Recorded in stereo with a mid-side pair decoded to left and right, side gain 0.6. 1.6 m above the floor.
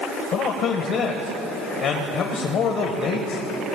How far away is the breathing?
I don't hear breathing.